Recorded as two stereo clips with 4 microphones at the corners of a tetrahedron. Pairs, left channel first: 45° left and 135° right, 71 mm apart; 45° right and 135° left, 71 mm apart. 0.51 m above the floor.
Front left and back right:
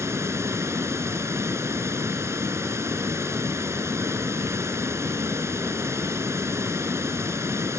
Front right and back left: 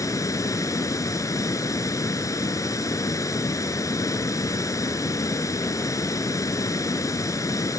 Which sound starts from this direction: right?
Running water, at 0.0 s.